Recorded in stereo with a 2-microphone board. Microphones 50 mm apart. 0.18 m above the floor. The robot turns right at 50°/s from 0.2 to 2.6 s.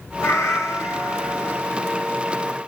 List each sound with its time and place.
0.2 s a cat meowing: 75° left, 1.5 m; by 1.6 s 145° left, 1.5 m